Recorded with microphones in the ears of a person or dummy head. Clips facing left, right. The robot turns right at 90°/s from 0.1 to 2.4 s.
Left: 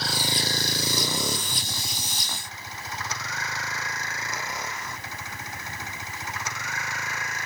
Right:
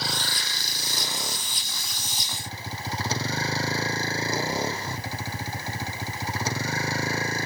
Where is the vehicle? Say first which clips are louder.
Left 4 dB; centre (ahead or behind); by 7.5 s 30° right (ahead or behind).